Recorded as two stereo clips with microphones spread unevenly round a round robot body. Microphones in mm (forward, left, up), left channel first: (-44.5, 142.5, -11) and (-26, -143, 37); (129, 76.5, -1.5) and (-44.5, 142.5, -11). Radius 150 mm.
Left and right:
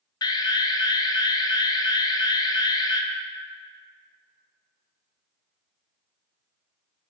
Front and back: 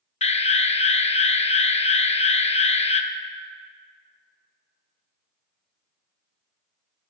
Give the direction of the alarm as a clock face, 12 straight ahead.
11 o'clock.